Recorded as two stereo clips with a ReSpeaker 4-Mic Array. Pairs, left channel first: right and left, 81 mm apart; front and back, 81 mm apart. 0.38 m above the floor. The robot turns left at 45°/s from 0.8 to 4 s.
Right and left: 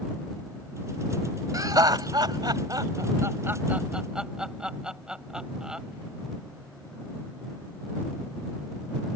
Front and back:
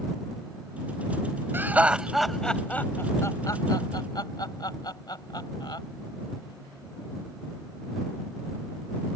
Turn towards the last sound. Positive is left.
turn(degrees=10)